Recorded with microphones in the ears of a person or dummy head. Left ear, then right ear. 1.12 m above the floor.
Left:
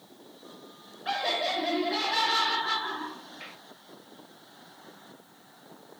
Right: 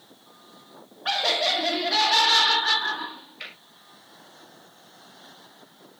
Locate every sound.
1.1 s laughter: 45° right (ahead or behind), 1.7 m